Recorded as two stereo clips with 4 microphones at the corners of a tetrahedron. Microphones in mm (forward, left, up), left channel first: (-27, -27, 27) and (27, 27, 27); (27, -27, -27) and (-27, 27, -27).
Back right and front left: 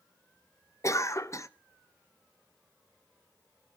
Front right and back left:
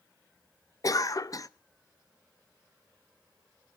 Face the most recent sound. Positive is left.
turn(degrees=-85)